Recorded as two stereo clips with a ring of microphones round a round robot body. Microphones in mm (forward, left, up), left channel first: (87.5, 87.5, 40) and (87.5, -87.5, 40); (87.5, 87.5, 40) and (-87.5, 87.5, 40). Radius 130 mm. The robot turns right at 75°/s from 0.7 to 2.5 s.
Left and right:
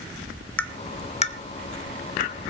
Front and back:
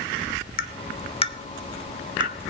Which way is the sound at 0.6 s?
10° left.